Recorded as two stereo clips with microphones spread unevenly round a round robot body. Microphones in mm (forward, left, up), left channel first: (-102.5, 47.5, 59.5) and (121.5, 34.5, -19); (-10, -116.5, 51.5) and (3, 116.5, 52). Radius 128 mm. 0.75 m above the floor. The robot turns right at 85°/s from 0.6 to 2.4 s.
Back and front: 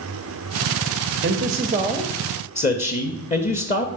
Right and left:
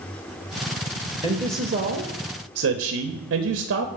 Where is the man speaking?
15° left, 0.8 m; by 3.9 s 115° left, 0.8 m.